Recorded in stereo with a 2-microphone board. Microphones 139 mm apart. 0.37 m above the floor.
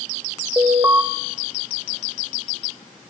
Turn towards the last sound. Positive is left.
turn(degrees=-20)  # may be behind; listen again after turning